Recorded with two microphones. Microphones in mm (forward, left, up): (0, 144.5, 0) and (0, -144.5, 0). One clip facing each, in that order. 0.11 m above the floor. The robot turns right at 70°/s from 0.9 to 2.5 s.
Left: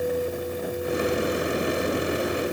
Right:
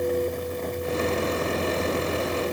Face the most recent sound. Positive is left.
No sound to turn to.